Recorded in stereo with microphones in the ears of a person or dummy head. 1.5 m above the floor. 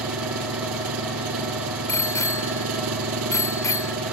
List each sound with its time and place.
0.0 s an engine running: 90° right
1.9 s a bicycle bell: 15° left (ahead or behind)